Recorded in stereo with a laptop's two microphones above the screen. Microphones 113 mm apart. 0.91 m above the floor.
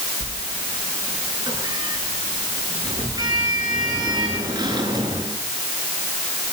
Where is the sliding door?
40° right (ahead or behind), 8.5 m.